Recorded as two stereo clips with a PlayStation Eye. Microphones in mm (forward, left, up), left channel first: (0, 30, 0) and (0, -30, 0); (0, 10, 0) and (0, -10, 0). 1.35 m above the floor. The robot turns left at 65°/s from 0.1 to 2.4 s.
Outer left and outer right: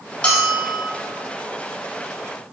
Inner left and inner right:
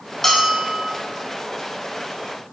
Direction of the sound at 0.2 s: 20° left.